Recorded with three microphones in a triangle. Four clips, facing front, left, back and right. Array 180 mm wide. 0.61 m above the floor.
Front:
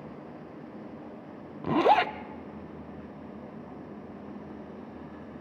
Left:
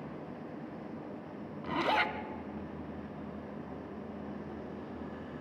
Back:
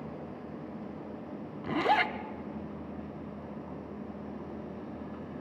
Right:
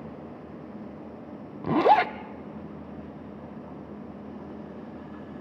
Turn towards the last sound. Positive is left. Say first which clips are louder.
# right 11 dB, front 5 dB
turn(degrees=-65)